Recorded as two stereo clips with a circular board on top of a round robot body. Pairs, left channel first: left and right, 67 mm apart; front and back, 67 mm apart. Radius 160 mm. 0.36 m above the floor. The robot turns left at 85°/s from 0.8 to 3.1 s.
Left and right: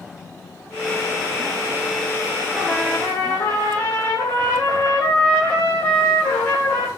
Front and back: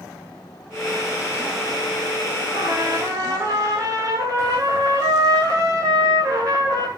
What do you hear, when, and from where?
2.5 s a trumpet: 165° right, 8.5 m; by 6.9 s 145° left, 8.5 m